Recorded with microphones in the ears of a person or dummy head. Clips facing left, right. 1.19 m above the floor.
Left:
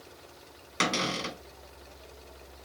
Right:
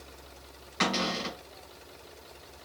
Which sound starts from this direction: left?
A cupboard door, at 0.8 s.